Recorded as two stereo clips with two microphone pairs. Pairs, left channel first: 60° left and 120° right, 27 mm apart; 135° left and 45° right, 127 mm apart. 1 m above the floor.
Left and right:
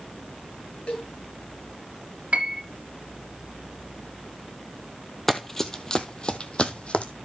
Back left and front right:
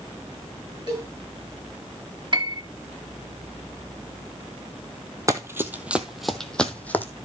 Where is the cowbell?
15° left, 8 m.